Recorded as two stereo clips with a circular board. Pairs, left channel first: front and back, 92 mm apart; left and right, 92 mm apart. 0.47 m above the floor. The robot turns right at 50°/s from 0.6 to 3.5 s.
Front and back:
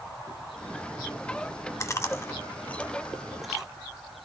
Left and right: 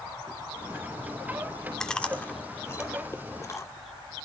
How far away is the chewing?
About 0.8 m.